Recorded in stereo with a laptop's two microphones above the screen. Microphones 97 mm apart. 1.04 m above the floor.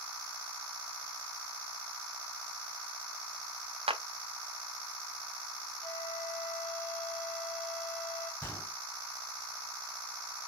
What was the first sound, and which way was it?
A clap, 85° right.